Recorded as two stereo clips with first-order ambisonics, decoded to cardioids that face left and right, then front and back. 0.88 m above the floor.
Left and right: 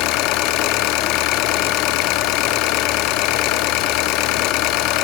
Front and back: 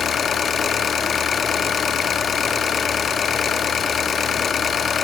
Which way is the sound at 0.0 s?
65° left.